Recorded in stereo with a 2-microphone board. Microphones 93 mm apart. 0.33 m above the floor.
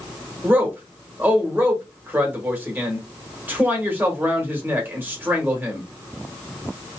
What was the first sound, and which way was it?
A man speaking, 20° right (ahead or behind).